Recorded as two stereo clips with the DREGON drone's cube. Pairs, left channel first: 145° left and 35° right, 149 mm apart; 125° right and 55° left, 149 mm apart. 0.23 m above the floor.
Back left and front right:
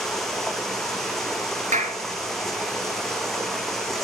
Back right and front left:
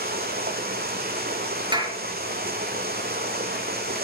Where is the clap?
Straight ahead, 3 m.